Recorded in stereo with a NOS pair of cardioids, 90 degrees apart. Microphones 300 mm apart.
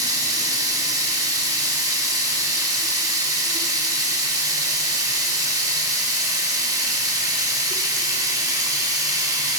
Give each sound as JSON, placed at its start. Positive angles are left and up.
{"t": 0.0, "sound": "running water", "azimuth_deg": -10, "distance_m": 1.3}